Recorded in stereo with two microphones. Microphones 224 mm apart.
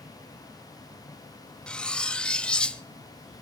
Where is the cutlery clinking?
5° left (ahead or behind), 0.6 m.